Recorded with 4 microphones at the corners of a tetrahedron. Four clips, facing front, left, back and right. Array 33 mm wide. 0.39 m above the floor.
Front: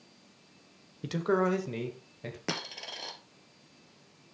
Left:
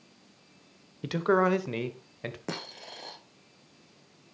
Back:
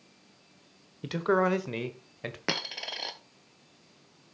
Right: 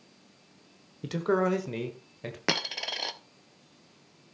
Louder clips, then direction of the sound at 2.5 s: Right 9 dB, back 4 dB; 115° right.